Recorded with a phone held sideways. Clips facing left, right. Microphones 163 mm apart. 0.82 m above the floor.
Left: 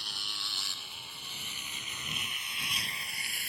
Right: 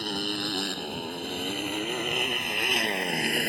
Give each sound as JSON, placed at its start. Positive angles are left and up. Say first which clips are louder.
{"t": 0.0, "sound": "a motorcycle", "louder": "right 19 dB", "side_deg": -65}